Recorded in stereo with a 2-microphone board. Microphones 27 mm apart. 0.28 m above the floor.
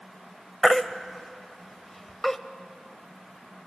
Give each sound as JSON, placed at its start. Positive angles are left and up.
{"t": 0.6, "sound": "a baby crying", "side_deg": 10, "distance_m": 0.6}